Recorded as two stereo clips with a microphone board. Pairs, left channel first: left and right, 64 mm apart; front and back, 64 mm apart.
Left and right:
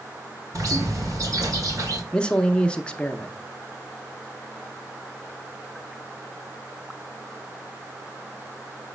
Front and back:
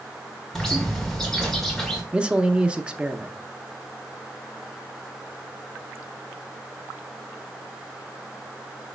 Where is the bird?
85° right, 1.6 m.